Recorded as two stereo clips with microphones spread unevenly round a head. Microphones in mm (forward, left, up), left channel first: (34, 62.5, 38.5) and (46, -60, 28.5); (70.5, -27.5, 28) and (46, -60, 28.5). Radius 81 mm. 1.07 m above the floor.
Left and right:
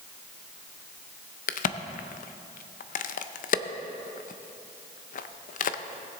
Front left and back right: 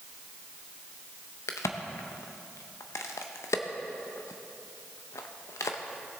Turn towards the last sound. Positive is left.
turn(degrees=80)